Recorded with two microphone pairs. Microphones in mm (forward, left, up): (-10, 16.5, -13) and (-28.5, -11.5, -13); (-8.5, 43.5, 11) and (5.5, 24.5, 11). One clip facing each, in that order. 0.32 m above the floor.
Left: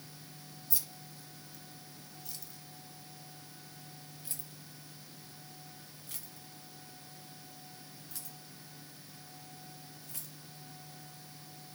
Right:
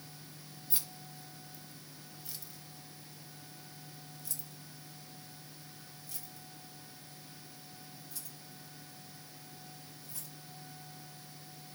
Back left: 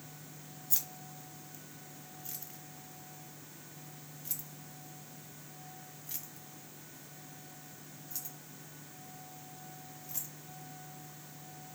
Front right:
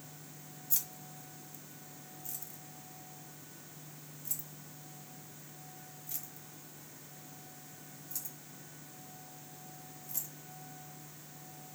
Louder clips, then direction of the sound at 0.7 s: Right 1 dB, back left 1 dB; 170° right.